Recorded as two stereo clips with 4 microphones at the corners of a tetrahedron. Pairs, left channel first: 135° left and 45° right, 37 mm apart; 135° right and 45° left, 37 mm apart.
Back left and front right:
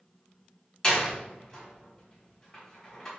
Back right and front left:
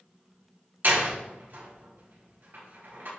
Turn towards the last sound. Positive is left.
turn(degrees=65)